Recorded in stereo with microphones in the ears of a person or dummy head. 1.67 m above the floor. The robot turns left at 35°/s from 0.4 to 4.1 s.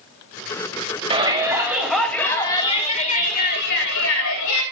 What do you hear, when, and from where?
1.1 s a shout: 150° right, 3.5 m; by 4.6 s 105° left, 3.5 m